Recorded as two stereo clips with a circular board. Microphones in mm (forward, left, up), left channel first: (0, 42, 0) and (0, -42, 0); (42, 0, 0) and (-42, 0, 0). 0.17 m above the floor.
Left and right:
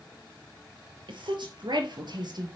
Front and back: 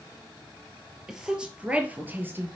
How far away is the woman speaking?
About 3 m.